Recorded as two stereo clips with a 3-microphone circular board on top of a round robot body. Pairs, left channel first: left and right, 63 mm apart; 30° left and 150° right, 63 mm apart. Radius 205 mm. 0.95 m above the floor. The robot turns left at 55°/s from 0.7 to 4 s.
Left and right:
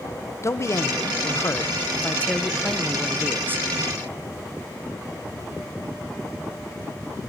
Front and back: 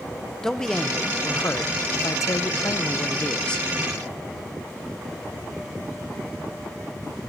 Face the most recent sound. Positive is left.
turn(degrees=-70)